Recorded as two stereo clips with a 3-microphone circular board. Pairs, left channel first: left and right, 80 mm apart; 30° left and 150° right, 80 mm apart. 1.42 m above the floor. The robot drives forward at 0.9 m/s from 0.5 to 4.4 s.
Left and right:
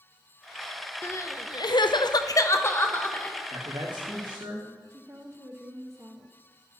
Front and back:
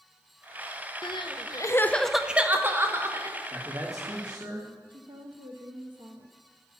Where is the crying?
35° left, 0.9 m; by 3.4 s 160° left, 1.5 m.